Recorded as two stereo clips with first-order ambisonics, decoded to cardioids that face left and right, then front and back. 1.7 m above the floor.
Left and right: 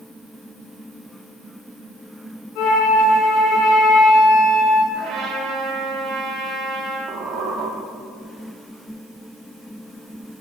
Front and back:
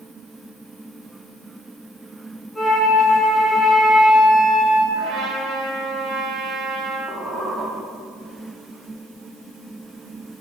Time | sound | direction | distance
2.5 | a flute | 80° left | 2.5 m
4.9 | a trumpet | 125° right | 2.0 m
7.1 | a squeak | 95° right | 2.5 m